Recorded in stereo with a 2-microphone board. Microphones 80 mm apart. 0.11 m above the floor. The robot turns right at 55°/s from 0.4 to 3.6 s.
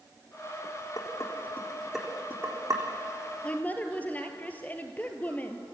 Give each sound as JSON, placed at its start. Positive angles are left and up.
{"t": 1.0, "sound": "dishes clattering", "side_deg": 50, "distance_m": 4.5}
{"t": 3.4, "sound": "a woman speaking", "side_deg": 15, "distance_m": 2.5}